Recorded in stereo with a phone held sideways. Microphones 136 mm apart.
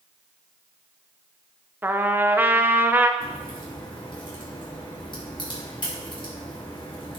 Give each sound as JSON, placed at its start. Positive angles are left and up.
{"t": 1.8, "sound": "a trumpet", "side_deg": -15, "distance_m": 0.7}
{"t": 3.2, "sound": "a crack", "side_deg": 35, "distance_m": 3.5}